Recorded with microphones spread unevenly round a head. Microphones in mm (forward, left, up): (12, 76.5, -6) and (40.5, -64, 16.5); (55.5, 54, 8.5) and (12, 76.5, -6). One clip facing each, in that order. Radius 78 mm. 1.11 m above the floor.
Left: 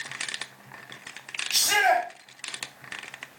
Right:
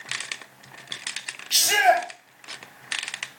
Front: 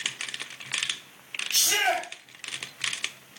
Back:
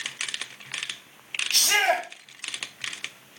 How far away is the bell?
I don't hear a bell.